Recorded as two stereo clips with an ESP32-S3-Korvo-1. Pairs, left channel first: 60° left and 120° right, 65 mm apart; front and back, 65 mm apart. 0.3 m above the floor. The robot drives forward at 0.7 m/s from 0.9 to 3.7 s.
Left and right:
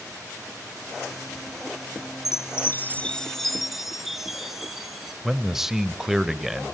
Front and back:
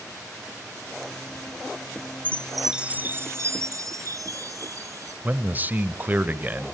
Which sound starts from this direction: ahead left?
A chime, at 2.2 s.